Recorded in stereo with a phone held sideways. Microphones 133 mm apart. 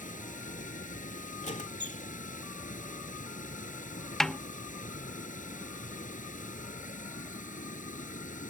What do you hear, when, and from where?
0.0 s running water: 80° left
1.4 s a squeak: 65° left (ahead or behind)
4.2 s a snare drum: 5° left (ahead or behind)